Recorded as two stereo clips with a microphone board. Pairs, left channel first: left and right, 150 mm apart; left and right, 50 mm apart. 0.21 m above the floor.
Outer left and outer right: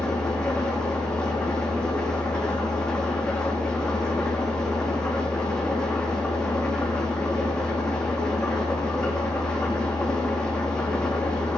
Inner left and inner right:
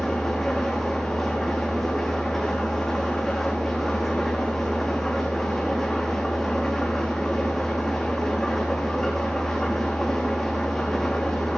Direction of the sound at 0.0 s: 5° left (ahead or behind).